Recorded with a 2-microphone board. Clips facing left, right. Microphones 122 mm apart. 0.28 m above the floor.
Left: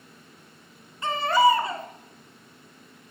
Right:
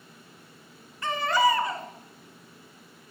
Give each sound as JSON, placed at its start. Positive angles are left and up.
{"t": 1.0, "sound": "a baby crying", "side_deg": 25, "distance_m": 1.0}